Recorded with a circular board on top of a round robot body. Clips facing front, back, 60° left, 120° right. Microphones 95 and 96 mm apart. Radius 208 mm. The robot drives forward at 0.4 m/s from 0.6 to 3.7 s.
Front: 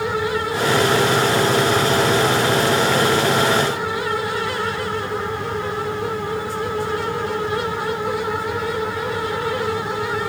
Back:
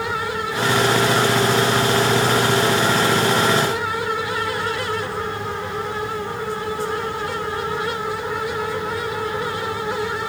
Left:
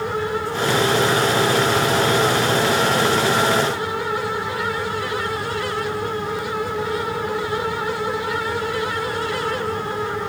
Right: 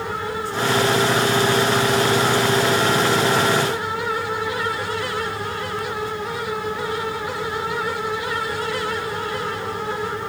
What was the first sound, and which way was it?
Only background noise.